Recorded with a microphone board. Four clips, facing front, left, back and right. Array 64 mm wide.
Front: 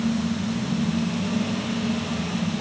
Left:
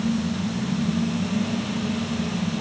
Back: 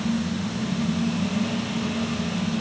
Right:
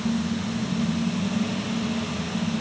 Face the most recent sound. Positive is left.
No sound to turn to.